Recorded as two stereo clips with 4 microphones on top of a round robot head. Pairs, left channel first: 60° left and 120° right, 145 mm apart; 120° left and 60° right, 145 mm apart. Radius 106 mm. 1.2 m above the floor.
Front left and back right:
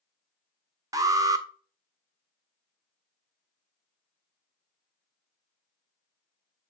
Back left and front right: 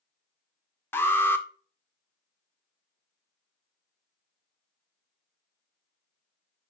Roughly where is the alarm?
Behind.